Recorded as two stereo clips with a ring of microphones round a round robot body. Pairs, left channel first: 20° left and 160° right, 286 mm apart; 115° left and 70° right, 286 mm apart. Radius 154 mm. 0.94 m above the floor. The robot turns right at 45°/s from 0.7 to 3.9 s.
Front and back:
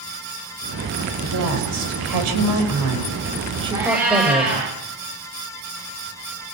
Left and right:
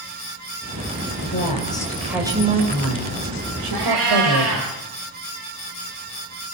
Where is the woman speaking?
165° left, 5.5 m; by 4.7 s 75° right, 5.5 m.